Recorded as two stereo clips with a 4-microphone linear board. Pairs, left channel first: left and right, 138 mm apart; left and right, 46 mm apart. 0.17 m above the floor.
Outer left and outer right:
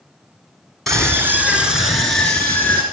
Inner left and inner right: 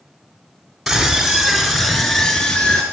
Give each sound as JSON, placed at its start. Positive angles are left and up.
{"t": 0.9, "sound": "a scream", "side_deg": 5, "distance_m": 1.3}